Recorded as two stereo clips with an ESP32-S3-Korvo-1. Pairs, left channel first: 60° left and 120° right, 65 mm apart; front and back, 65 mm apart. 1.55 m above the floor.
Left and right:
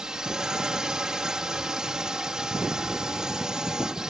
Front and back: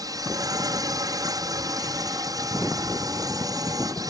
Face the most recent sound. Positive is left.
turn(degrees=160)